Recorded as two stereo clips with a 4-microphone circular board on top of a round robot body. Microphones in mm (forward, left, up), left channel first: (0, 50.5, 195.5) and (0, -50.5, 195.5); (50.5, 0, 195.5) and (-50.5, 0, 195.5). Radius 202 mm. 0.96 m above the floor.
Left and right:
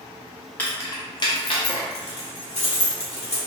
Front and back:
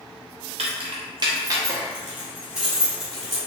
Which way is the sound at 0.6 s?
165° left.